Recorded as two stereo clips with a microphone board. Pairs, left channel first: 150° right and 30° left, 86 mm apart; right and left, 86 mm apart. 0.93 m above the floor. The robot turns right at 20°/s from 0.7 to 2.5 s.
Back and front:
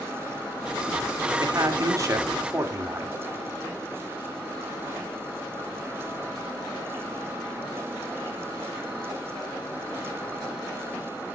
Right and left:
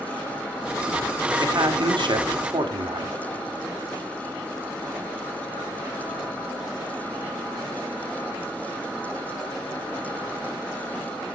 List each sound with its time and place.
1.4 s a man speaking: 65° left, 1.9 m; by 3.2 s 85° left, 1.9 m